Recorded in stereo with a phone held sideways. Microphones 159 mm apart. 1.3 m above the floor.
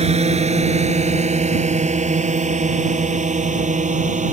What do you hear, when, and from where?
0.0 s a drone: 40° right (ahead or behind); by 4.3 s 50° right (ahead or behind)